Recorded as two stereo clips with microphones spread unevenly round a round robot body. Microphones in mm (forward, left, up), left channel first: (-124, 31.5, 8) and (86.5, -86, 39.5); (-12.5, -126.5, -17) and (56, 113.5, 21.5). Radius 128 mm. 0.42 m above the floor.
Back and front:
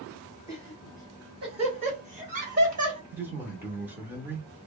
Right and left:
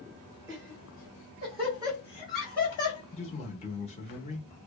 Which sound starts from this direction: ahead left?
Laughter, at 0.5 s.